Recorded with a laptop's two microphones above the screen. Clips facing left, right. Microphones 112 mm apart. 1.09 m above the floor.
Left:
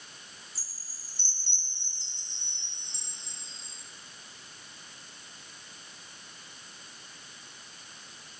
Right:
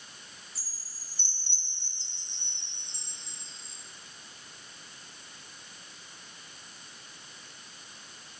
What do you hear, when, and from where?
0.6 s a chime: 40° left (ahead or behind), 4.5 m